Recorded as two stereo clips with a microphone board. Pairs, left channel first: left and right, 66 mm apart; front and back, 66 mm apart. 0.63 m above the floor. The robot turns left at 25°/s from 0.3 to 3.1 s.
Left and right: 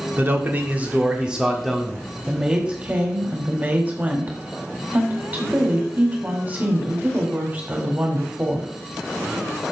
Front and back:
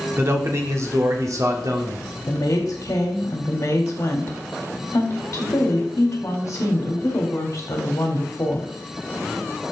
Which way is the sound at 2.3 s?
15° right.